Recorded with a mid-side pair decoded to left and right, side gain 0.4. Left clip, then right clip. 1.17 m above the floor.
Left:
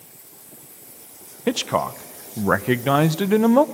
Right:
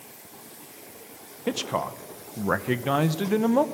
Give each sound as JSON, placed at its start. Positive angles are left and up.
{"t": 1.5, "sound": "a man speaking", "azimuth_deg": 45, "distance_m": 0.6}